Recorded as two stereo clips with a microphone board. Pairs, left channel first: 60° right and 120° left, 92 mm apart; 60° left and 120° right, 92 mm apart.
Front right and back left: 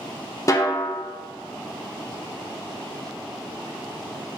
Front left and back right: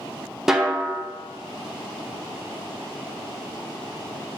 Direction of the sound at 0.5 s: 40° right.